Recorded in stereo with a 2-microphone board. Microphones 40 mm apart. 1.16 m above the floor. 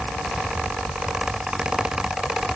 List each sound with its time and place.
Only background noise.